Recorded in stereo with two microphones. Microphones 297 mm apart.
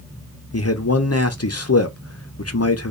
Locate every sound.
0.5 s a man speaking: 55° left (ahead or behind), 0.7 m